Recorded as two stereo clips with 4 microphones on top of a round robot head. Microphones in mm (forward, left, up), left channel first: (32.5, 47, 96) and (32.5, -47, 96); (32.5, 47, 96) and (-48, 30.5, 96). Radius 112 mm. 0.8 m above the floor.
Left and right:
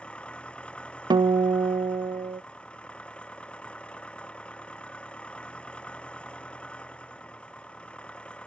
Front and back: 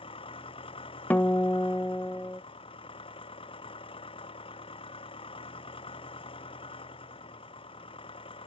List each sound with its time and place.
0.0 s an engine running: 10° left
1.1 s a guitar: 55° right